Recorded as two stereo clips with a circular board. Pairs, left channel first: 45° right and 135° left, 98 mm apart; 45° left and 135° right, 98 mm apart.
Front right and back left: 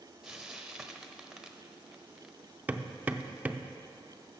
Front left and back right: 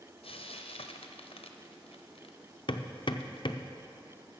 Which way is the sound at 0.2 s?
50° left.